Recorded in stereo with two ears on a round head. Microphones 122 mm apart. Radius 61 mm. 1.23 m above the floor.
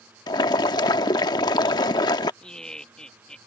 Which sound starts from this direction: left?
Boiling, at 0.3 s.